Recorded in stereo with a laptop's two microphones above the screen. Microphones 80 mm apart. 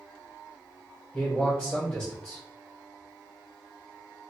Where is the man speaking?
20° left (ahead or behind), 1.1 m.